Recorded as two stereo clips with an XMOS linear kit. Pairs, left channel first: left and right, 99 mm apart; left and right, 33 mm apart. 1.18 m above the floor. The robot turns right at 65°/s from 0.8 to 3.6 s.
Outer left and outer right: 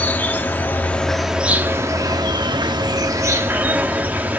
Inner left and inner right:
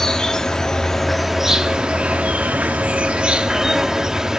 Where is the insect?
155° left, 0.8 m; by 4.4 s 25° right, 0.8 m.